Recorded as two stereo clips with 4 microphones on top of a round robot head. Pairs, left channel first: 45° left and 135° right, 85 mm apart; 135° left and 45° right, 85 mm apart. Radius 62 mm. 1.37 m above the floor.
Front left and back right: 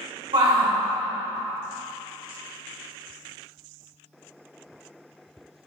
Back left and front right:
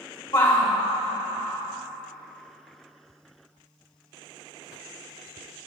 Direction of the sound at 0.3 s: 175° right.